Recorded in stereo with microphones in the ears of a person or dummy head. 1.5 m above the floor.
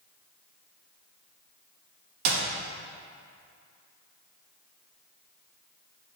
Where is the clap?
50° right (ahead or behind), 1.4 m.